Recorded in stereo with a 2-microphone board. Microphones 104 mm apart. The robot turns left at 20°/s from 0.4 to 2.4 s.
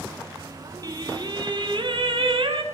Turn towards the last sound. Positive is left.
turn(degrees=-80)